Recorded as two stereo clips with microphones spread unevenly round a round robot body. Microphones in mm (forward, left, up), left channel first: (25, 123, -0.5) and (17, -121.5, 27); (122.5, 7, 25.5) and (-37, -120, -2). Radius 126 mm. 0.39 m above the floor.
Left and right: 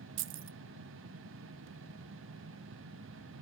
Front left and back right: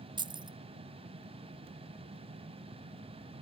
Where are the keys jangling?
95° right, 0.6 m.